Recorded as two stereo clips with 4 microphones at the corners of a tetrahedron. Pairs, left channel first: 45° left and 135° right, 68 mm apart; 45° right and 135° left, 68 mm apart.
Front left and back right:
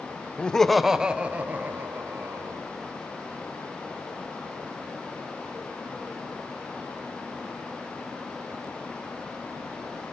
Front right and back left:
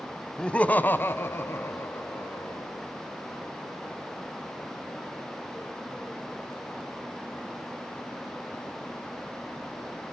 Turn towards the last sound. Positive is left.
turn(degrees=-90)